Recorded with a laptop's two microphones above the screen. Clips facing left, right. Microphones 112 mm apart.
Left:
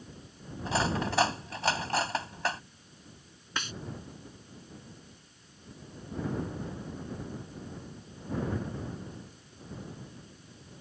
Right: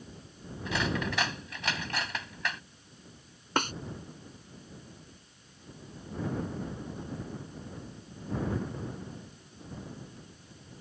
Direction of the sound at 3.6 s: 55° right (ahead or behind).